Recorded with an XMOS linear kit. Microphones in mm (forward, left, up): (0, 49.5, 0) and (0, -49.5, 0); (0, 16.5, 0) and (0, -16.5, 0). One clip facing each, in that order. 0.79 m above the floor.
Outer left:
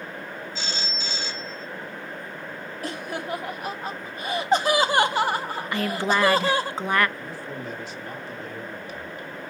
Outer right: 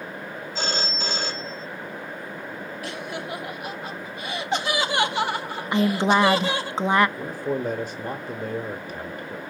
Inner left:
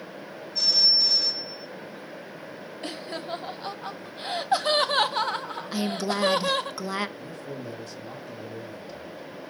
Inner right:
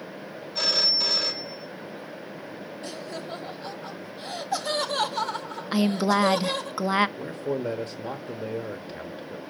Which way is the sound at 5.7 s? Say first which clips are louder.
Outer right 5 dB, inner right 6 dB; 20° right (ahead or behind).